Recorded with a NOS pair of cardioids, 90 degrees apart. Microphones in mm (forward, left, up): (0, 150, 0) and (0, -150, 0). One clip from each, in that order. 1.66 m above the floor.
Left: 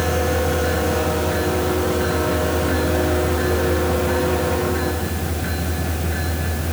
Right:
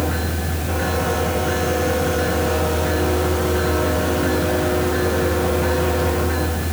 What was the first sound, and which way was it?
Only background noise.